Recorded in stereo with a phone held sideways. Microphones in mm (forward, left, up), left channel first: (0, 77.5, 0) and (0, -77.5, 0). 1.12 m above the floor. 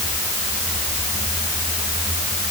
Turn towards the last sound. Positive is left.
No sound to turn to.